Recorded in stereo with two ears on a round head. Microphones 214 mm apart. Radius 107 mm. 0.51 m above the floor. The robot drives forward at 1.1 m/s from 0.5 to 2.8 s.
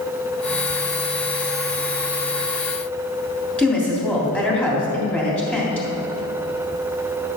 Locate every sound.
3.6 s a woman speaking: 5° left (ahead or behind), 3 m